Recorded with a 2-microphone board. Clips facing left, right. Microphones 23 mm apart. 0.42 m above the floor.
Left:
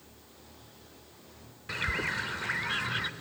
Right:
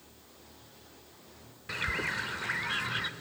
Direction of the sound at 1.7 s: 5° left (ahead or behind).